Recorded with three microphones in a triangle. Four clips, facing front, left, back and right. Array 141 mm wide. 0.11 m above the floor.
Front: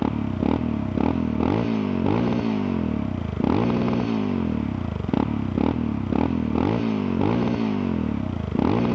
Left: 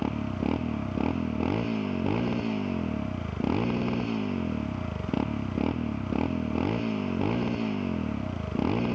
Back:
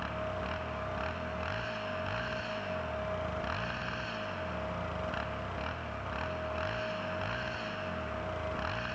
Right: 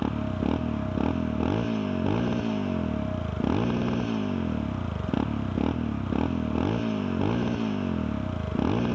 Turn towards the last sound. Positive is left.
turn(degrees=-5)